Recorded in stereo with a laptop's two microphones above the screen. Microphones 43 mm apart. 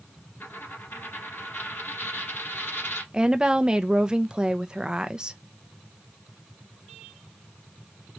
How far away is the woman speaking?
About 0.5 m.